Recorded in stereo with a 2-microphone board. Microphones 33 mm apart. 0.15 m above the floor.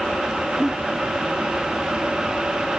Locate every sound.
0.6 s a giggle: 5° right (ahead or behind), 1.2 m